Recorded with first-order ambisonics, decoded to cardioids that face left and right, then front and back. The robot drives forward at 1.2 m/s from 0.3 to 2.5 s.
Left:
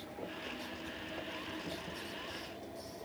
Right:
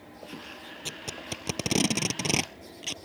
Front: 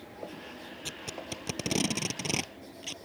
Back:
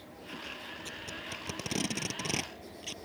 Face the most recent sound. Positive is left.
turn(degrees=-85)